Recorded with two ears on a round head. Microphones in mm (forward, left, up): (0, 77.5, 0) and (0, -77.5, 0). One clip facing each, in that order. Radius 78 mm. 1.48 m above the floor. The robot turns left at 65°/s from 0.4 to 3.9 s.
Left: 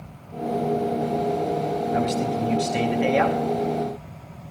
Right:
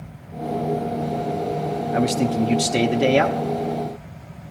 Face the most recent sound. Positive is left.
turn(degrees=175)